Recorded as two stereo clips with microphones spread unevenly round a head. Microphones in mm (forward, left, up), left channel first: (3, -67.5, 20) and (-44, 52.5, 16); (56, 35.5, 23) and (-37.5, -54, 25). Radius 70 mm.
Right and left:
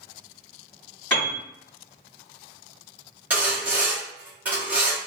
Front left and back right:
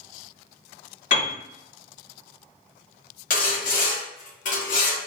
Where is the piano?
15° left, 1.8 m.